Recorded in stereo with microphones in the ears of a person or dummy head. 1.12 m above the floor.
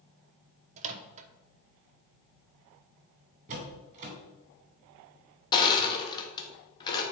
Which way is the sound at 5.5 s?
25° left (ahead or behind).